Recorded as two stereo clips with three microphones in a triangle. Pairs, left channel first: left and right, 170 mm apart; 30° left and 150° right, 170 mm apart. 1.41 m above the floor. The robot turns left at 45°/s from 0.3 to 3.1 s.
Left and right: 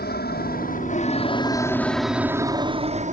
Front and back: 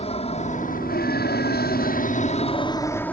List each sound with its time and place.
0.0 s an aircraft: 80° left; by 3.1 s 50° right